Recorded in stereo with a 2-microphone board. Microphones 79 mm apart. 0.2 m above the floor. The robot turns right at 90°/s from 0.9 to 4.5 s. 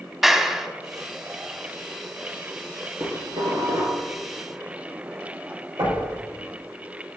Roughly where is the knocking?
Right.